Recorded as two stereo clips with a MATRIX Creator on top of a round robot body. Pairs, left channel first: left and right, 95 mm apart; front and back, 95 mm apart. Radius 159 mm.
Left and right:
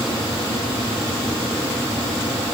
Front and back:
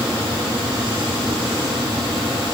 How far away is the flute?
I don't hear a flute.